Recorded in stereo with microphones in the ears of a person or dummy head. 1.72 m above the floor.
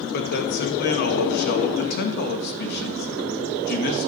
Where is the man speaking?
55° left (ahead or behind), 1.9 m.